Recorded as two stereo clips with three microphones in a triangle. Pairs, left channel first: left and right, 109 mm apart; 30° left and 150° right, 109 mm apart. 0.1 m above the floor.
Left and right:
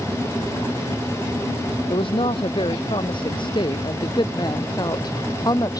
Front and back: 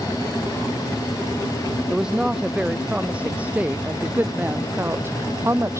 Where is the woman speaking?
125° left; by 5.8 s 145° left.